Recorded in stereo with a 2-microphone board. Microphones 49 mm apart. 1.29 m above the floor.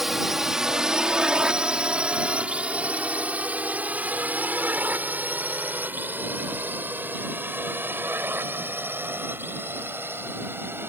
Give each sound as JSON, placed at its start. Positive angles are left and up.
{"t": 0.0, "sound": "a drone", "side_deg": -5}